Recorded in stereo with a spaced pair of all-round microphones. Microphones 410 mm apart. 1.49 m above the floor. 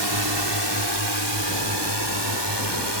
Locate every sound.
0.0 s a drone: 75° right (ahead or behind); by 3.0 s 80° right